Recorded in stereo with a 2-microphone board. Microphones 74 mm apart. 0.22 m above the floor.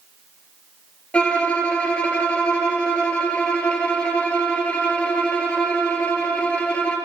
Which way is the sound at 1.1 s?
15° left (ahead or behind).